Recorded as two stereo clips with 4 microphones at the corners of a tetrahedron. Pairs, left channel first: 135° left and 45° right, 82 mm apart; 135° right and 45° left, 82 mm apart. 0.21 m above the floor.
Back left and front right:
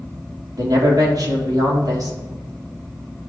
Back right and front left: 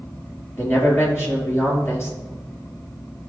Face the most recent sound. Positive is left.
turn(degrees=-80)